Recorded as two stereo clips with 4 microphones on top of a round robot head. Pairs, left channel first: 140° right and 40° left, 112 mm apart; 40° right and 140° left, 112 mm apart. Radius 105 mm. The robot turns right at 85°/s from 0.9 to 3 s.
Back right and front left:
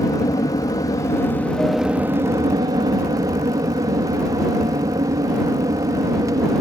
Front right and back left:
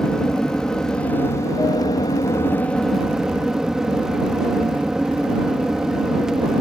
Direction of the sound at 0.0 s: 120° right.